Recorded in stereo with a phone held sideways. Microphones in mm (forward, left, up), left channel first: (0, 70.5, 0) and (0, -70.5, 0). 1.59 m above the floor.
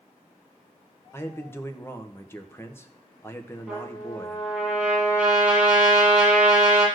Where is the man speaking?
15° left (ahead or behind), 1.3 m.